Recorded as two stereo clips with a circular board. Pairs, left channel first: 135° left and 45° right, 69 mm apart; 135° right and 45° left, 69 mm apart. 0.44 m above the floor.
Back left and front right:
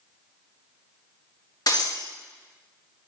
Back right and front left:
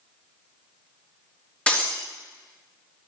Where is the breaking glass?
155° left, 3 m.